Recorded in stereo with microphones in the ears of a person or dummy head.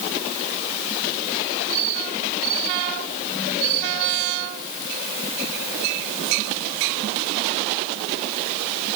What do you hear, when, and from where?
Only background noise.